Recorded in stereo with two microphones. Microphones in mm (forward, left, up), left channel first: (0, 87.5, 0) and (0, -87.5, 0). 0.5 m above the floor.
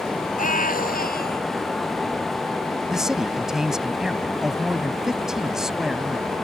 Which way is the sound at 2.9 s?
5° right (ahead or behind).